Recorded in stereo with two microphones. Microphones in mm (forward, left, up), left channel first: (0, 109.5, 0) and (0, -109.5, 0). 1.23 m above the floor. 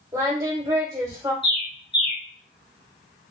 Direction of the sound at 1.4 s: 50° left (ahead or behind).